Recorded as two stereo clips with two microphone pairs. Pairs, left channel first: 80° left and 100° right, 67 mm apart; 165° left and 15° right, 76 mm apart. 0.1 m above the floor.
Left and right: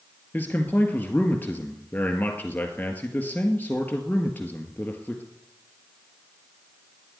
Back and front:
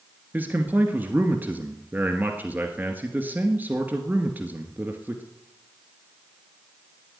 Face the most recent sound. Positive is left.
turn(degrees=35)